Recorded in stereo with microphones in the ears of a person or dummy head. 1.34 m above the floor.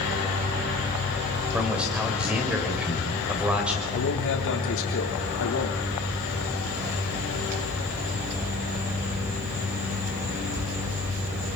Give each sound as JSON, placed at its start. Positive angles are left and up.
{"t": 1.5, "sound": "a man speaking", "side_deg": -5, "distance_m": 5.5}
{"t": 3.9, "sound": "a man speaking", "side_deg": 65, "distance_m": 4.5}